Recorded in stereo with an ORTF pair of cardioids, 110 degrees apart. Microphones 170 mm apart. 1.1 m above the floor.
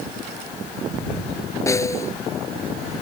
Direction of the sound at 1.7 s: 20° left.